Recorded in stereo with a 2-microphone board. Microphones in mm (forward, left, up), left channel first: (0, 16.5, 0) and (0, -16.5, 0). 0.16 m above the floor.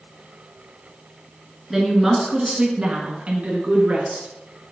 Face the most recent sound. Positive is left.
turn(degrees=-50)  # may be behind; listen again after turning